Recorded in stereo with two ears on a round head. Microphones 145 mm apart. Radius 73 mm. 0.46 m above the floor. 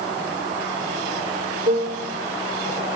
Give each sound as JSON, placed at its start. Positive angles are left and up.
{"t": 1.7, "sound": "a piano", "side_deg": -45, "distance_m": 1.1}